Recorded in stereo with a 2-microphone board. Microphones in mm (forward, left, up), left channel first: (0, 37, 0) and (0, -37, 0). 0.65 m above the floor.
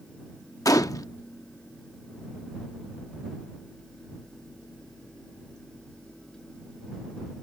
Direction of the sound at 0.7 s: 55° left (ahead or behind).